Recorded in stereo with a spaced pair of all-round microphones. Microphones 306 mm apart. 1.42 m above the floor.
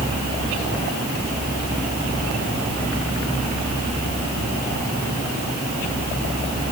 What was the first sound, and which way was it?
Only background noise.